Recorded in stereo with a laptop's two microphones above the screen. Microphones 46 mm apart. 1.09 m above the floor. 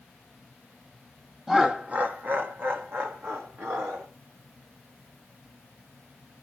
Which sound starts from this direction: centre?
Laughter, at 1.5 s.